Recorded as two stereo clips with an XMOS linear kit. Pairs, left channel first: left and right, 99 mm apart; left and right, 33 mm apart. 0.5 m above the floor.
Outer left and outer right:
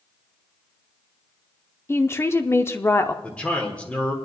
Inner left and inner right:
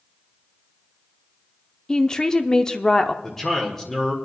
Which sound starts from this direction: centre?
A man speaking, at 3.2 s.